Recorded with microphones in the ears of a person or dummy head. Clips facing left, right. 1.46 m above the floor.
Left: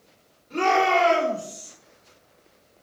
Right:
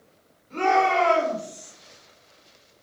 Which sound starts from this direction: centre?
A shout, at 0.5 s.